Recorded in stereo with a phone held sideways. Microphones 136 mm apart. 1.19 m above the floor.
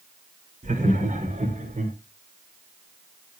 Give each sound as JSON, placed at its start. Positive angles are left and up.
{"t": 0.6, "sound": "laughter", "side_deg": -65, "distance_m": 3.0}